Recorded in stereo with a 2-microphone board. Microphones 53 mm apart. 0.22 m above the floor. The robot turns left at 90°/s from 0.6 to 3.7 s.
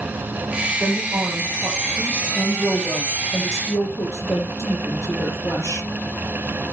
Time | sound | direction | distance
0.8 | a woman speaking | 25° right | 6.5 m